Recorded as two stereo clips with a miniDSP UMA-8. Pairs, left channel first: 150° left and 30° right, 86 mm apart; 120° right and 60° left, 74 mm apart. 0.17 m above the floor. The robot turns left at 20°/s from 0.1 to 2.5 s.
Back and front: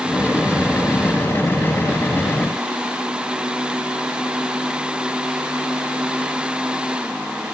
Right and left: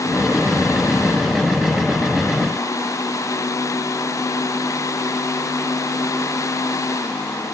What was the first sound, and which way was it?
Only background noise.